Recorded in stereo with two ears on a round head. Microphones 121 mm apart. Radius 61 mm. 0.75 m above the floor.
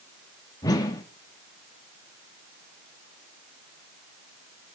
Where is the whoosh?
30° left (ahead or behind), 1.1 m.